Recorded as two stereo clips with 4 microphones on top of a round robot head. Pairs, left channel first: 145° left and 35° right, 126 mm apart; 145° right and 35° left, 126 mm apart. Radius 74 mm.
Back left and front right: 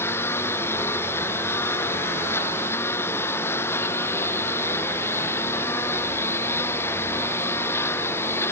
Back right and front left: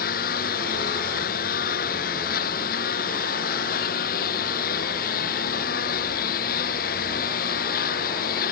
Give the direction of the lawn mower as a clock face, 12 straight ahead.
5 o'clock.